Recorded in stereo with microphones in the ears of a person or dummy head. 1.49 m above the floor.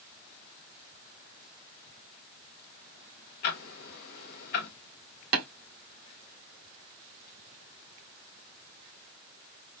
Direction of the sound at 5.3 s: 60° right (ahead or behind).